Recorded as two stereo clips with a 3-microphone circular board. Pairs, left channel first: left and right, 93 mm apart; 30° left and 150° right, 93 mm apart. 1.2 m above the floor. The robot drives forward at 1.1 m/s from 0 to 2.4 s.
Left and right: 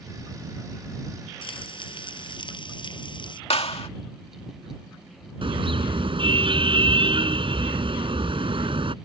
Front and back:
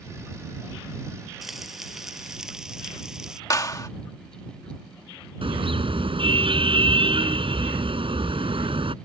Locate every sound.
1.4 s frying: 125° left
3.5 s a clap: 85° left
5.4 s a car horn: 120° right